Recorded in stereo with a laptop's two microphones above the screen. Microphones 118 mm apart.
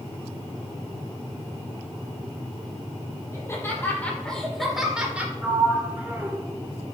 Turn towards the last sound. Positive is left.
turn(degrees=-15)  # may be behind; listen again after turning